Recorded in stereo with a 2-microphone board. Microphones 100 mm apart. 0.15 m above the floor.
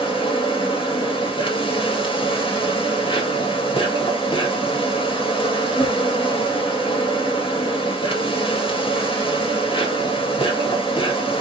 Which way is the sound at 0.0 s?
60° left (ahead or behind).